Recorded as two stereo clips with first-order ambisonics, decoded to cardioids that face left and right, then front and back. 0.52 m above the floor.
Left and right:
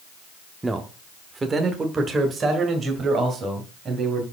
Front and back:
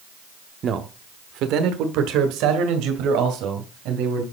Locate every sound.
0.6 s a man speaking: 160° right, 0.7 m